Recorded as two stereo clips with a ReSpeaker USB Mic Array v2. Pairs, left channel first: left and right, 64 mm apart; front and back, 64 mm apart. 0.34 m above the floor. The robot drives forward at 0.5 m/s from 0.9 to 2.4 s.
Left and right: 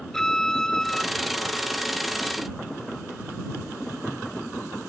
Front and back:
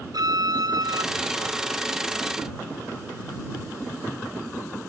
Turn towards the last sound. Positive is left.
turn(degrees=175)